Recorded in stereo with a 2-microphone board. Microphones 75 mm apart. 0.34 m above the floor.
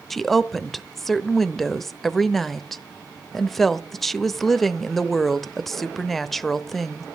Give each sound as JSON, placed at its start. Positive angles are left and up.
{"t": 0.1, "sound": "a woman speaking", "side_deg": 5, "distance_m": 1.0}